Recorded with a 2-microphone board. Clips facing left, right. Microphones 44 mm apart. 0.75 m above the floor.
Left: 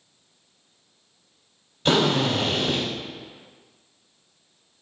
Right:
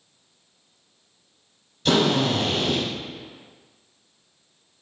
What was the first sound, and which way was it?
A drill, 25° left (ahead or behind).